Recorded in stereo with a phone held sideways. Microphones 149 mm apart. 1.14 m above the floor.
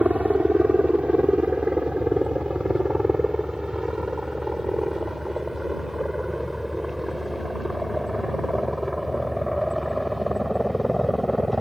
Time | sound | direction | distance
0.0 | a helicopter | 10° right (ahead or behind) | ?